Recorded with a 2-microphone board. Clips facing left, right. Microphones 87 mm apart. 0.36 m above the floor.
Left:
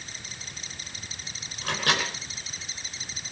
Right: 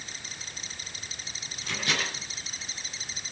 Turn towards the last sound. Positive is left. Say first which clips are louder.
# left 4 dB
turn(degrees=75)  # may be behind; listen again after turning